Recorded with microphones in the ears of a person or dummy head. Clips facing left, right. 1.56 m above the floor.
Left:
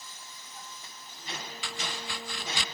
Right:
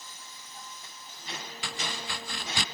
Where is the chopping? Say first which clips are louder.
Right 2 dB; 25° right (ahead or behind).